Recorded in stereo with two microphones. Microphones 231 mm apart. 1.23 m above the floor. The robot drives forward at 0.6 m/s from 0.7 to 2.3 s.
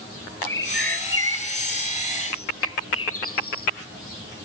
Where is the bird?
55° left (ahead or behind), 1.2 m; by 3.7 s 70° left (ahead or behind), 1.1 m.